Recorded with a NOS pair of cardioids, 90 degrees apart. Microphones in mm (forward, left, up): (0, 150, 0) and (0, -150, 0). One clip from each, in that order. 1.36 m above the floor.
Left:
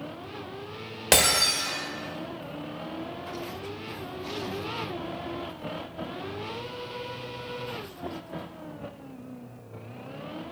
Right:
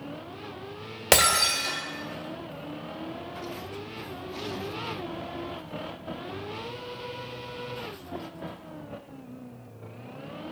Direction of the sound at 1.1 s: 15° right.